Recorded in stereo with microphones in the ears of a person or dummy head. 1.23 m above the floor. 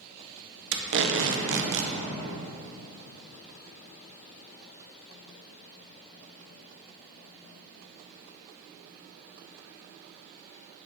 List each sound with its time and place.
0.7 s tape being pulled: 60° right (ahead or behind), 0.5 m